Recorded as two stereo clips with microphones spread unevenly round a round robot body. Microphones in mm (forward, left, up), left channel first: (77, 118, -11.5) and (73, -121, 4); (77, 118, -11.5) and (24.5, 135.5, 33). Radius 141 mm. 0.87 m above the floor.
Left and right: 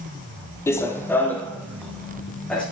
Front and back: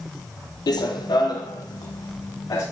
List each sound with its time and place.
0.7 s running footsteps: 10° left, 1.0 m; by 2.6 s straight ahead, 3 m